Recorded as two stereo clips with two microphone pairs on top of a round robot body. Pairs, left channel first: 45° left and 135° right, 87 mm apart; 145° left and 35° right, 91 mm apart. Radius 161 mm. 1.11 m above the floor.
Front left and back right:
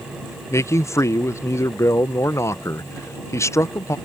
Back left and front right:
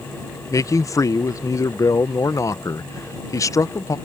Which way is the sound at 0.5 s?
95° left.